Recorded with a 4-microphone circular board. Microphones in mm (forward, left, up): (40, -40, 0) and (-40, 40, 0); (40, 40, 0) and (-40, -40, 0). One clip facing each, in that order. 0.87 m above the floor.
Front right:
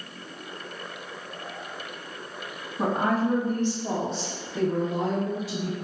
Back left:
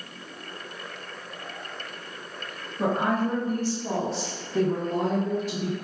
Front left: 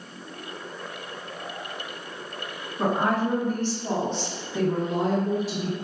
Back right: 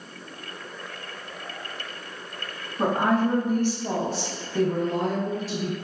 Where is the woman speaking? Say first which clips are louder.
Even, back right 2 dB; 70° right, 1.1 m; by 5.7 s 120° left, 1.2 m.